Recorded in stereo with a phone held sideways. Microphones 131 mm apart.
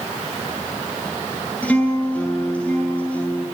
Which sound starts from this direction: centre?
A guitar, at 1.6 s.